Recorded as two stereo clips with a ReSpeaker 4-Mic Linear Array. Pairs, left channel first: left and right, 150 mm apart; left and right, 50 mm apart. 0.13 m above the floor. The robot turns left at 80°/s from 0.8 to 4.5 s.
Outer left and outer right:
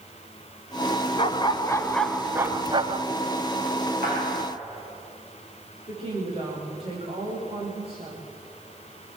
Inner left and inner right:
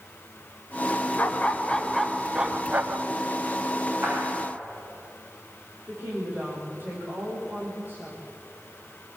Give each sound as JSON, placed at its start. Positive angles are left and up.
{"t": 1.2, "sound": "a dog barking", "azimuth_deg": 75, "distance_m": 0.7}
{"t": 4.0, "sound": "a clap", "side_deg": -75, "distance_m": 8.0}
{"t": 5.9, "sound": "a woman speaking", "side_deg": -40, "distance_m": 9.5}